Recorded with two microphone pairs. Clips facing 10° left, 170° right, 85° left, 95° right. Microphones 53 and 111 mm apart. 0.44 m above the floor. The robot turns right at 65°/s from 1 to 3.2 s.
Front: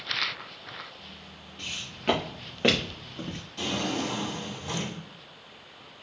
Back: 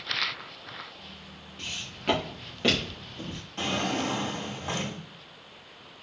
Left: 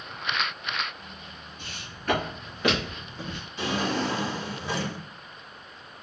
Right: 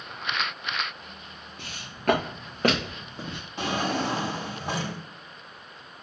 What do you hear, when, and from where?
1.6 s footsteps: 95° right, 2.5 m; by 3.4 s 30° right, 3 m
3.6 s a drawer: 125° right, 1.8 m